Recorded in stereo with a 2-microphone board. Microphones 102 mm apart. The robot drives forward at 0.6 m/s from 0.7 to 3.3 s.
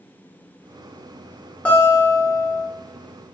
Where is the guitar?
15° left (ahead or behind), 1.0 m; by 2.6 s 10° left (ahead or behind), 1.4 m.